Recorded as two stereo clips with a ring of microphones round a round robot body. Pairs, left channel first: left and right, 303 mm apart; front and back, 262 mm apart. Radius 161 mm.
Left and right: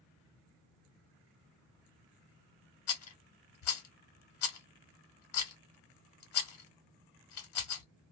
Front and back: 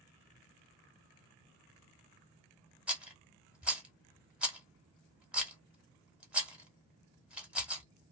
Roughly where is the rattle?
Left.